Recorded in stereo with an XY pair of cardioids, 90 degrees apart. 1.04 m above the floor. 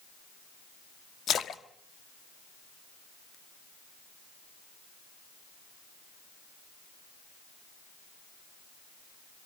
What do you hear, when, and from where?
1.3 s a splash: 65° left, 1.3 m